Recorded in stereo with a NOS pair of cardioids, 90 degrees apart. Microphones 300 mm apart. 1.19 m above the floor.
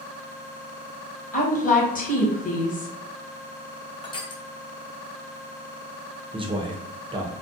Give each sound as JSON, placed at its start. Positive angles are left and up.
{"t": 1.3, "sound": "a woman speaking", "azimuth_deg": 25, "distance_m": 1.2}
{"t": 4.0, "sound": "crushing", "azimuth_deg": 15, "distance_m": 0.6}
{"t": 6.3, "sound": "a man speaking", "azimuth_deg": -15, "distance_m": 0.6}